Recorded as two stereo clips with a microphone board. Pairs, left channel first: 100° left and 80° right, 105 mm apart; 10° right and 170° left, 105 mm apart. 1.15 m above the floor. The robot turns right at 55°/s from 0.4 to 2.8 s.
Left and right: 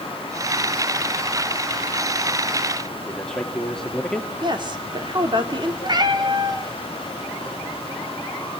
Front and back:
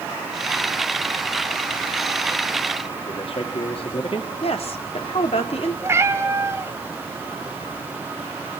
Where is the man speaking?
15° left, 2.0 m.